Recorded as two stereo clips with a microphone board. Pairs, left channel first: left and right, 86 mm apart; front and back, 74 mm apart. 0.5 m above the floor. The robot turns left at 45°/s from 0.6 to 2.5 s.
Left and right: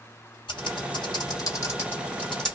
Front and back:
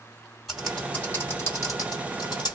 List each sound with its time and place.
0.5 s typing on a keyboard: 90° left, 1.9 m; by 2.6 s 5° left, 1.9 m